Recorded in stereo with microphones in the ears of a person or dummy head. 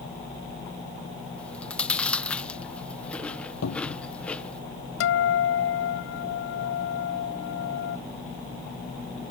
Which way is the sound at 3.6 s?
80° left.